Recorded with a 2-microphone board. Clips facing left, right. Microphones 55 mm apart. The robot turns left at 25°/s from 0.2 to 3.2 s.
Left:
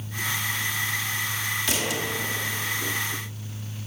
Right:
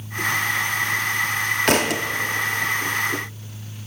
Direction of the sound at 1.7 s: 60° right (ahead or behind).